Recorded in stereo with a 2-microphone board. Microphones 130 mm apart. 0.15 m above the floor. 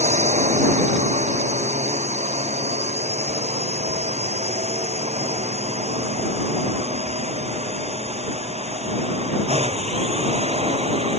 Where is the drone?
65° right (ahead or behind); by 11.2 s 55° right (ahead or behind).